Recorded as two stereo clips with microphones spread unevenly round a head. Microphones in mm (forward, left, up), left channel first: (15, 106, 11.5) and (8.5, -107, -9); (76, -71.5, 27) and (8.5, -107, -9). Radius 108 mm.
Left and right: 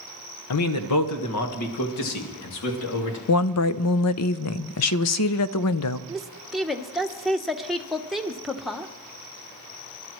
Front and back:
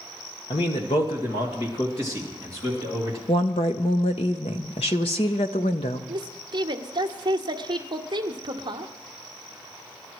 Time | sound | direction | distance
0.5 | a man speaking | 85° left | 1.0 m
3.3 | a woman speaking | 70° left | 0.5 m
6.1 | a woman speaking | straight behind | 0.9 m